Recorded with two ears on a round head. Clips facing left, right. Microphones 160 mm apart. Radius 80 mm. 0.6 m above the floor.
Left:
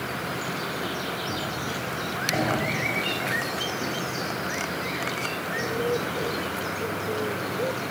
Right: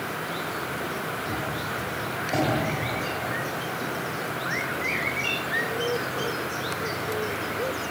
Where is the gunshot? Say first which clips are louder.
Even; 10° right (ahead or behind), 3 m.